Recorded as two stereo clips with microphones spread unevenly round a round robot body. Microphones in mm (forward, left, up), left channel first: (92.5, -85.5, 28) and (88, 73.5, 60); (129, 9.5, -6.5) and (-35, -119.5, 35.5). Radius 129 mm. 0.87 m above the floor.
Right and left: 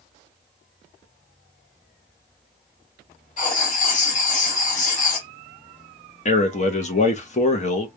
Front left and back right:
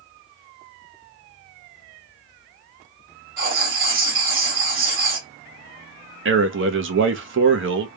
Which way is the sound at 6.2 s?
115° right.